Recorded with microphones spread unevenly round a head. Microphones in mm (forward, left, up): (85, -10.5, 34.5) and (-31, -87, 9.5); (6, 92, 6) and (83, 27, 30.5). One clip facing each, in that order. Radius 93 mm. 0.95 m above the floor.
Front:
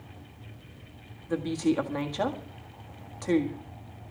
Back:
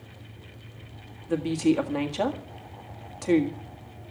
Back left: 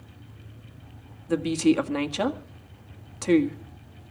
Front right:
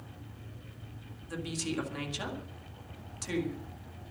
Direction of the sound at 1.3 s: 135° left.